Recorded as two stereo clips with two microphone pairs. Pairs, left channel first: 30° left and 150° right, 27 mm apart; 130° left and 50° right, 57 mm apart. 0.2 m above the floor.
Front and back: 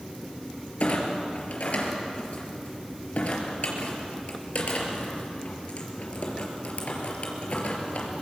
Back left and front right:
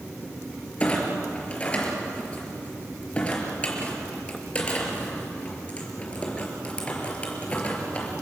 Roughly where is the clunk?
Ahead left.